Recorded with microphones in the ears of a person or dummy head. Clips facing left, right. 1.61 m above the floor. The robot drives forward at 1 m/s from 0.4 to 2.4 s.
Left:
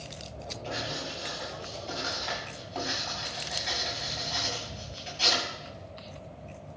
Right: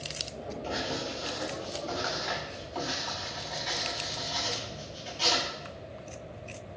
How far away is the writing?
About 7.5 m.